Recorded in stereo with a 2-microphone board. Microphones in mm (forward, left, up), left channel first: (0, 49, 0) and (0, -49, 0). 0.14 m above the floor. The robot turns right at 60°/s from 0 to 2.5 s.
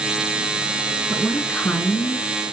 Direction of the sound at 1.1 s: 5° right.